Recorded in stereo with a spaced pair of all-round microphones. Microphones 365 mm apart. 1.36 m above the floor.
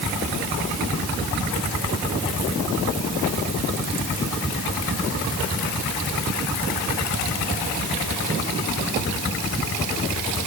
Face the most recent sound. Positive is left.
No sound to turn to.